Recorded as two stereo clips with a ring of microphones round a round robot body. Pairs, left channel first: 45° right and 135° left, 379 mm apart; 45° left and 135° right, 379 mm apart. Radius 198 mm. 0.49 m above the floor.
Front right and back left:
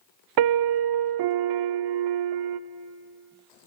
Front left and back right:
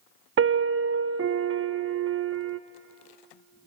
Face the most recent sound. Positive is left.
turn(degrees=165)